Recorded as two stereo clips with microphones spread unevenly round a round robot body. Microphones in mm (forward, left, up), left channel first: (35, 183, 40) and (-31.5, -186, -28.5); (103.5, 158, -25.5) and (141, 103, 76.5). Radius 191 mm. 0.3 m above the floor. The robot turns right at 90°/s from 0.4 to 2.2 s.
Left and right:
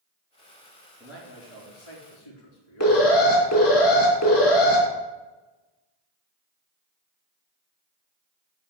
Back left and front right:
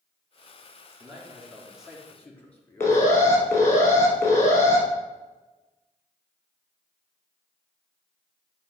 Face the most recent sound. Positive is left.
turn(degrees=135)